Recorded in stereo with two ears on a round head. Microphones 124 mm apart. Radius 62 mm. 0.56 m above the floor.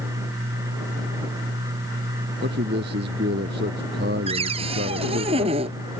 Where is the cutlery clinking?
I don't hear cutlery clinking.